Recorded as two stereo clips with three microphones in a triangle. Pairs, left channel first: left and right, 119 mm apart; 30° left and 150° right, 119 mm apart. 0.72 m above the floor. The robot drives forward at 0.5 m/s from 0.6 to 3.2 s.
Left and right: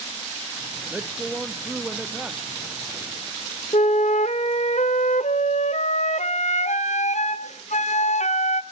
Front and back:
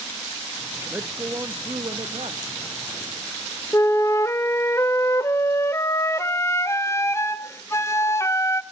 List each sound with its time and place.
0.9 s a man speaking: 150° right, 0.8 m; by 2.4 s 175° right, 1.3 m
3.7 s a flute: 95° left, 0.6 m